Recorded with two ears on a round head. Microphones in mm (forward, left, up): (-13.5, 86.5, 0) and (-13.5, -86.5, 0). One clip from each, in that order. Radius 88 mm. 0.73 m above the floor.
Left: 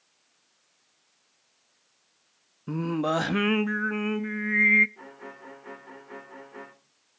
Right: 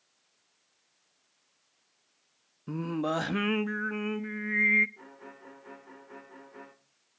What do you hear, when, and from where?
2.7 s singing: 5° left (ahead or behind), 0.5 m
5.0 s a violin: 15° left (ahead or behind), 3 m